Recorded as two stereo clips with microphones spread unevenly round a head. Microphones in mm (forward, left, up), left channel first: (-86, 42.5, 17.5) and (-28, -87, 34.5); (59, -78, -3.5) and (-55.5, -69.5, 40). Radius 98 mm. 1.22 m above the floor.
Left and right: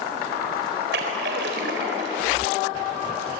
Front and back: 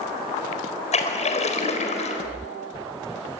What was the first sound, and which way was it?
A splash, 30° right.